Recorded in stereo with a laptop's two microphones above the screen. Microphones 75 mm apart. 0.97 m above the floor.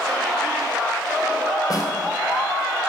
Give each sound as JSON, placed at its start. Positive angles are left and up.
{"t": 1.7, "sound": "a snare drum", "side_deg": 50, "distance_m": 4.0}